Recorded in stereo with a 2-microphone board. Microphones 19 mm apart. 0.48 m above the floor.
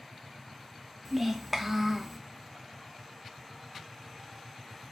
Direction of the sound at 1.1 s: 15° right (ahead or behind).